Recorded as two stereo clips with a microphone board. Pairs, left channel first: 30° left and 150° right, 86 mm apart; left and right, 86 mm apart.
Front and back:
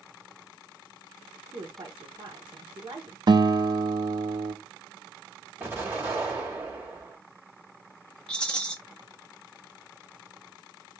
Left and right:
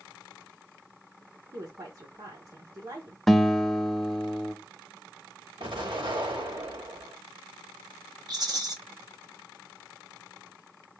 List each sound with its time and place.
1.5 s a woman speaking: 125° right, 1.1 m
3.3 s a guitar: straight behind, 0.6 m
5.6 s an explosion: 85° right, 3 m
8.3 s a rattle: 50° right, 1.4 m